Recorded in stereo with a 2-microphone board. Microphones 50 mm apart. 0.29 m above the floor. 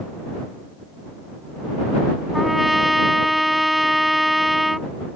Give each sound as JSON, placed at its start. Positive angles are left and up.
{"t": 2.3, "sound": "a trumpet", "side_deg": 0}